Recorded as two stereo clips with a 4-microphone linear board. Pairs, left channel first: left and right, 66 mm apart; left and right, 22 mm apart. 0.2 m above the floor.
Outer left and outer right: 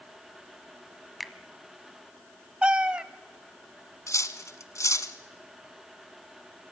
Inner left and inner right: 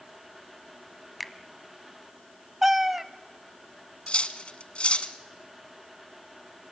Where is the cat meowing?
15° right (ahead or behind), 0.7 m.